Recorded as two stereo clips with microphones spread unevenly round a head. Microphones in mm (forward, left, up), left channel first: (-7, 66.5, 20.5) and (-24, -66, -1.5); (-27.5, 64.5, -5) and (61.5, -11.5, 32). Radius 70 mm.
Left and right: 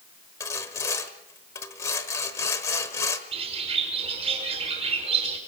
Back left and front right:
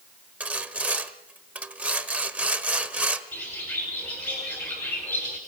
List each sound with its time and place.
0.4 s sawing: 20° left, 1.4 m
3.3 s a bird: 145° right, 5 m